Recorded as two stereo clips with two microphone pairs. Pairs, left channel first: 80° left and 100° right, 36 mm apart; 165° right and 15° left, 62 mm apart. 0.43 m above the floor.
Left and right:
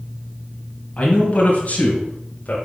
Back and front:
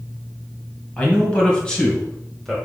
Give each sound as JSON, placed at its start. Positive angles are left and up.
{"t": 1.0, "sound": "a man speaking", "azimuth_deg": 130, "distance_m": 2.0}